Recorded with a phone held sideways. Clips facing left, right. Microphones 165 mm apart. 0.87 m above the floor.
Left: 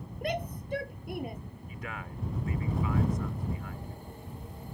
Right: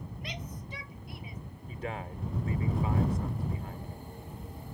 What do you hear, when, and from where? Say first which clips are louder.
0.2 s a shout: left 13 dB; 55° left (ahead or behind)
1.7 s a man speaking: right 5 dB; 30° right (ahead or behind)